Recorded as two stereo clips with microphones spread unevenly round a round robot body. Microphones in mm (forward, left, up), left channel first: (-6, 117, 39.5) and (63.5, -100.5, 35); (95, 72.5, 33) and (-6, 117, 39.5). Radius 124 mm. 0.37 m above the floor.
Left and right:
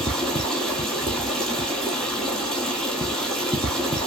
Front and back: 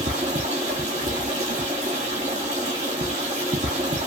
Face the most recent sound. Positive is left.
turn(degrees=-165)